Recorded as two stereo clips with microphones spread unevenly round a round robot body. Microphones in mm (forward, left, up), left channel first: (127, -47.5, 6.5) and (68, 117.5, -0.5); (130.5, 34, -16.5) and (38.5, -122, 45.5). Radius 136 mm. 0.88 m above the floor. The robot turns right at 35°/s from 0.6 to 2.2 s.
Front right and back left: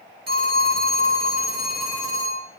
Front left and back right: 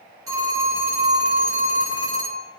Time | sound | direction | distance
0.3 | a phone ringing | 160° left | 1.6 m